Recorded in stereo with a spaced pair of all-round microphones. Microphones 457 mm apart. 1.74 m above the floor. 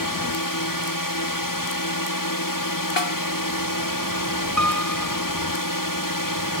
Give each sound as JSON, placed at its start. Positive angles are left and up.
{"t": 0.0, "sound": "a drone", "side_deg": 45}
{"t": 3.0, "sound": "a snare drum", "side_deg": 70}
{"t": 4.6, "sound": "a piano", "side_deg": -35}